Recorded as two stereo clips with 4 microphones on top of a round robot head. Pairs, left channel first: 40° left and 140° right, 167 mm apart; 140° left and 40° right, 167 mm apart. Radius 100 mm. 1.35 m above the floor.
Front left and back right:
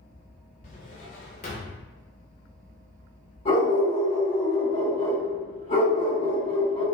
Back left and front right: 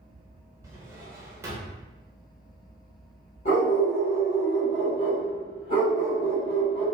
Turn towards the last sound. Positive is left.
turn(degrees=105)